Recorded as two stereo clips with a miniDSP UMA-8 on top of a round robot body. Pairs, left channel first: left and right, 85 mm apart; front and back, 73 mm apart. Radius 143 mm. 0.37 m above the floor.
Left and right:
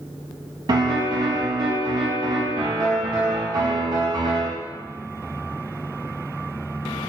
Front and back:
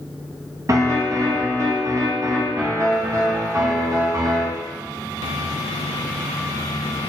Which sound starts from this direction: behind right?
A piano, at 0.7 s.